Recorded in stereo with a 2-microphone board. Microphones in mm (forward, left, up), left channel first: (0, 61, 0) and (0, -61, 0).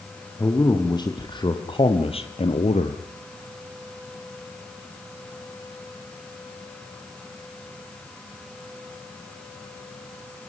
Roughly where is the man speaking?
Left.